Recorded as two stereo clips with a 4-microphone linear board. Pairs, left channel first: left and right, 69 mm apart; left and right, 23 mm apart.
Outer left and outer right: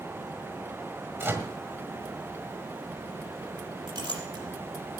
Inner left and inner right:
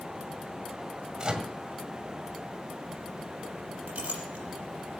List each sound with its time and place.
1.2 s a microwave: 30° right (ahead or behind), 1.6 m
3.9 s a clink: 85° right, 5.5 m